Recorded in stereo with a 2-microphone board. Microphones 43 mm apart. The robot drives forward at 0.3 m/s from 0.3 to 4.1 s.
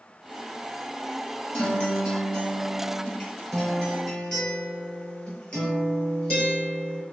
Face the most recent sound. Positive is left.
turn(degrees=15)  # may be behind; listen again after turning